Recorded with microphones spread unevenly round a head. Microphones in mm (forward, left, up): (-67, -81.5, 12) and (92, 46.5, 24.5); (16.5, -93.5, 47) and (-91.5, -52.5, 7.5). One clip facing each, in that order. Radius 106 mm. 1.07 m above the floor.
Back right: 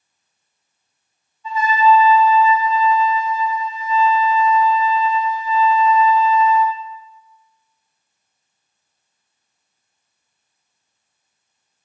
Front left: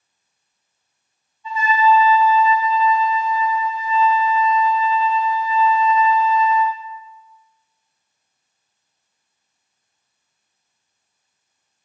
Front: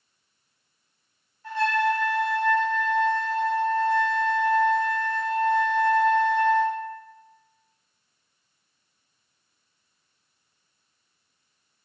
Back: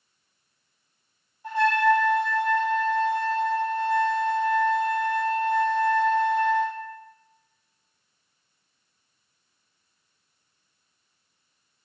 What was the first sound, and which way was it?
A trumpet, 120° right.